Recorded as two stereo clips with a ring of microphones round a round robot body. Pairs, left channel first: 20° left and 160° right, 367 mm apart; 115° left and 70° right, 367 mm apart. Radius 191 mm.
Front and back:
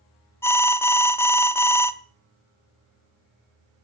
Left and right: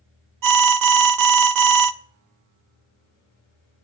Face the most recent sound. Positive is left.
turn(degrees=-60)